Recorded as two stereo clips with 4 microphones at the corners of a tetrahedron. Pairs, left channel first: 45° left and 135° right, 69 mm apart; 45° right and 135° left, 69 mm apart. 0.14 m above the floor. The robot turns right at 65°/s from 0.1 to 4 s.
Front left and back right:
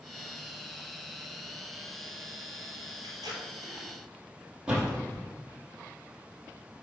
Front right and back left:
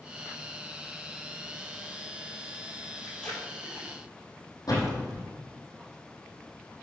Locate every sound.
3.0 s tape being pulled: 135° right, 4 m; by 3.9 s 80° right, 4 m
4.7 s a door slam: 60° right, 4 m